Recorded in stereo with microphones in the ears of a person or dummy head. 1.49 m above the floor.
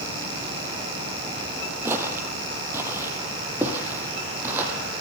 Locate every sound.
1.9 s footsteps: 15° right (ahead or behind), 2.5 m; by 4.7 s 10° right (ahead or behind), 4 m